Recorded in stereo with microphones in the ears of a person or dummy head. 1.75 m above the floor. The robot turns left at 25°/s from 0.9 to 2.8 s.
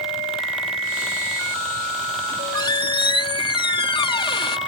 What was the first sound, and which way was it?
A squeak, 20° left (ahead or behind).